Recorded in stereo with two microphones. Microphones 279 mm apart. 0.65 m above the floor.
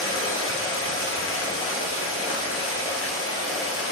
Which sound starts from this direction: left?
Running water, at 0.0 s.